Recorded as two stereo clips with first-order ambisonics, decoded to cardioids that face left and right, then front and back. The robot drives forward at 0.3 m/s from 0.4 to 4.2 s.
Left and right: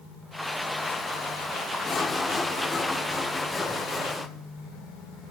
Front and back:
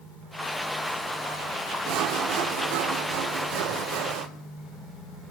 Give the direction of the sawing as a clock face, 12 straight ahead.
7 o'clock.